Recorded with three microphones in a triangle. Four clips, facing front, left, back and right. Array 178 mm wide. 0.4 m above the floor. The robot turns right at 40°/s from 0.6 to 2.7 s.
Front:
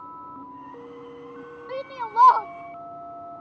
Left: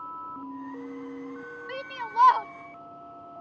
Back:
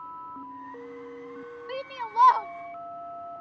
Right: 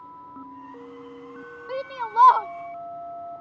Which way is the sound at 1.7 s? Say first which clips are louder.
Right 6 dB, front 4 dB; 70° right.